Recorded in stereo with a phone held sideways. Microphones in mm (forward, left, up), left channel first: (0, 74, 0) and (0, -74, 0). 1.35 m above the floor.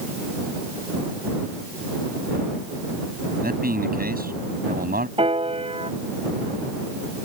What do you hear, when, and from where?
3.4 s a man speaking: 90° right
5.2 s a piano: 40° right (ahead or behind)